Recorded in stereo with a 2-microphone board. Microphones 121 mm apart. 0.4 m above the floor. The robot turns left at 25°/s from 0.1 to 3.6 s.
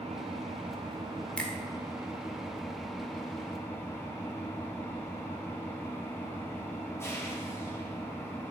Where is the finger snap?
10° left (ahead or behind), 0.8 m.